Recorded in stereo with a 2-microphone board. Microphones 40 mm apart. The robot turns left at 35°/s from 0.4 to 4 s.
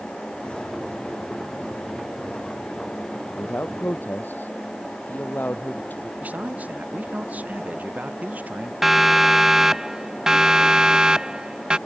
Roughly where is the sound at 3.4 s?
Left.